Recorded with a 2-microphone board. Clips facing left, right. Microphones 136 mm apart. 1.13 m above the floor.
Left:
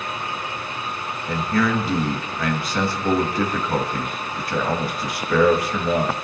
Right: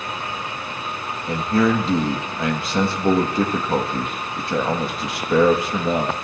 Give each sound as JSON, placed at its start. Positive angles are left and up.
{"t": 1.3, "sound": "a man speaking", "side_deg": -25, "distance_m": 1.6}